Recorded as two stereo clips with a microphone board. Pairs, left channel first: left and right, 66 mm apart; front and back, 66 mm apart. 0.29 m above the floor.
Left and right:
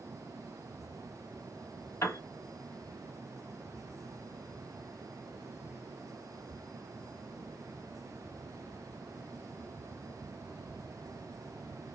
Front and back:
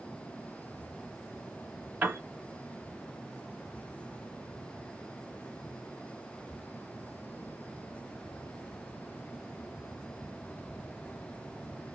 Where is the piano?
125° left, 1.1 m.